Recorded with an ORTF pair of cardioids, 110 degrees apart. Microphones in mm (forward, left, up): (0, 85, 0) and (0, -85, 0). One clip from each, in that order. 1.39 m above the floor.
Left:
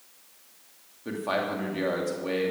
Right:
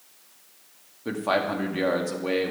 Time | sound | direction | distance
1.1 | a man speaking | 20° right | 2 m